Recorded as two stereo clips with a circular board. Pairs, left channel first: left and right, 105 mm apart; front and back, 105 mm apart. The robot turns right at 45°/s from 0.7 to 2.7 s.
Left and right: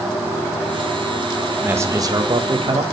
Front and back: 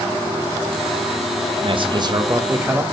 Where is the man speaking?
160° right, 0.9 m; by 2.8 s 110° right, 0.9 m.